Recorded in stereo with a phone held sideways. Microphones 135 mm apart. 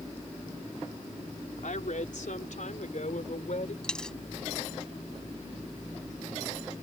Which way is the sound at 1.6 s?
75° left (ahead or behind).